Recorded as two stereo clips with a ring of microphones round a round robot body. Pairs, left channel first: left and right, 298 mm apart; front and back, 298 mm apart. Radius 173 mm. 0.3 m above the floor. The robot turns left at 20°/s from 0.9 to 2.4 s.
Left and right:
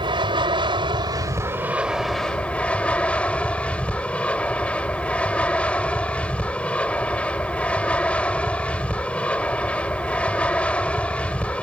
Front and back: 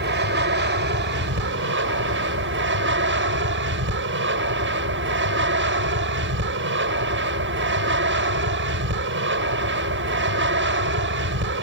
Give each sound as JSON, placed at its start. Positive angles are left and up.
{"t": 0.0, "sound": "an aircraft", "azimuth_deg": -155}